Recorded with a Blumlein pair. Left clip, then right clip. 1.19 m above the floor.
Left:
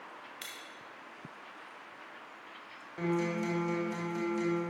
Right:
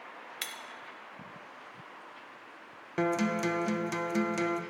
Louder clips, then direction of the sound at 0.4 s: Right 6 dB; 25° right.